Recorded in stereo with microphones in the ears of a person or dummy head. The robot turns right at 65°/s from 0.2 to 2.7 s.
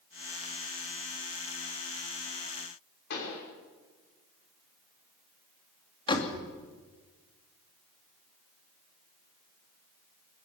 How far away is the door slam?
About 2.5 m.